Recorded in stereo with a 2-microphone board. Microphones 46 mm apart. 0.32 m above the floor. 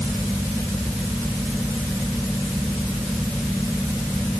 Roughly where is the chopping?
I don't hear chopping.